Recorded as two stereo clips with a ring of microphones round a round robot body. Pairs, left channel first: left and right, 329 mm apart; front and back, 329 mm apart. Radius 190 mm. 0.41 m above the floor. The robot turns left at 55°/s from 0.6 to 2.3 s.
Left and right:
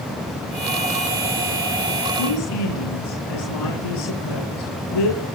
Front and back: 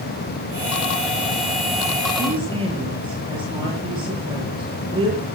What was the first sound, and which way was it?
A woman speaking, 110° left.